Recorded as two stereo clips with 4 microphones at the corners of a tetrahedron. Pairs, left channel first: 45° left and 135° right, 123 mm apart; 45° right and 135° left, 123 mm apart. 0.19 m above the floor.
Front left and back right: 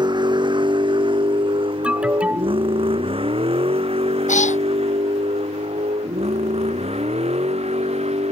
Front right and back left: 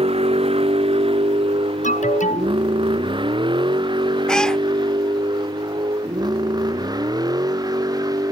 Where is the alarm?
55° right.